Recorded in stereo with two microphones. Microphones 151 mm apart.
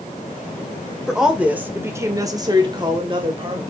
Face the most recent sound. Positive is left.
turn(degrees=-35)  # may be behind; listen again after turning